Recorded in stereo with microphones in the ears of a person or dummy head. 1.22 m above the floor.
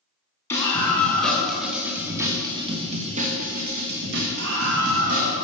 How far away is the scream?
About 2 m.